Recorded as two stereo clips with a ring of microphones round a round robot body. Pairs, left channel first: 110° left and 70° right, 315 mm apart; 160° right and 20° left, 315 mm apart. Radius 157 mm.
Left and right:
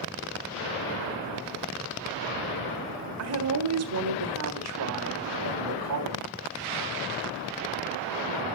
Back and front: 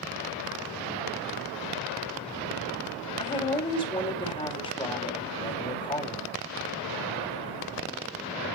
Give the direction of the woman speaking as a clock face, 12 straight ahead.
3 o'clock.